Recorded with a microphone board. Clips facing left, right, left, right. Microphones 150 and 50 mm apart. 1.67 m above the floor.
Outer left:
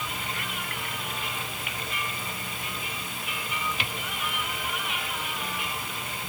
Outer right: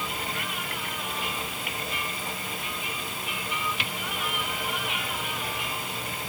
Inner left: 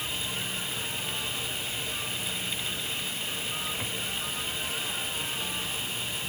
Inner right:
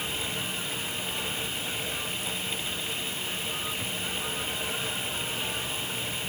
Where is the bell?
I don't hear a bell.